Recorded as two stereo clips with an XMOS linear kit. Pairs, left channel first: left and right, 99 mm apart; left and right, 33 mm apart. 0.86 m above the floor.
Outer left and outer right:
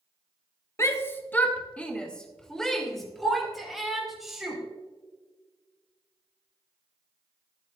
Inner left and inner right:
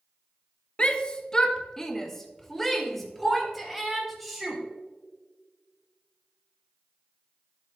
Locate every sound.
0.8 s a shout: 30° left (ahead or behind), 1.4 m; by 4.6 s 5° right (ahead or behind), 4.5 m